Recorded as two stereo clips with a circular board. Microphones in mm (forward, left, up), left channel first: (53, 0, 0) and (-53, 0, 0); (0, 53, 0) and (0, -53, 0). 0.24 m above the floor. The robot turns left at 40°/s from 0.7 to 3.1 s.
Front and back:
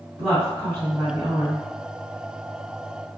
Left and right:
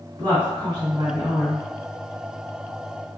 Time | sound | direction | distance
0.2 | a woman speaking | 115° right | 2.0 m